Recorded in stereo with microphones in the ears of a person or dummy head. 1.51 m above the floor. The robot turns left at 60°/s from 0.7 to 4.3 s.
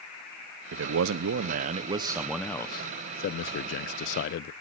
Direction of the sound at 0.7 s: 75° right.